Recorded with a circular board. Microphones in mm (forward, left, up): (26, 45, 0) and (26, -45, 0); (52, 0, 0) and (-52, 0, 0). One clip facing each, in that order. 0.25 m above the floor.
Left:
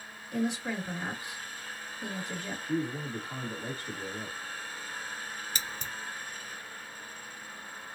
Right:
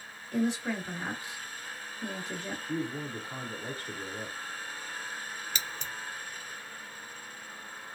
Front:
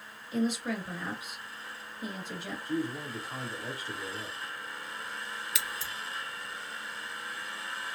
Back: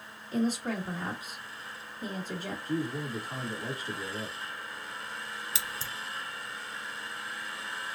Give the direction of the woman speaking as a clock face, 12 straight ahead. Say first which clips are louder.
Right 2 dB, back 1 dB; 7 o'clock.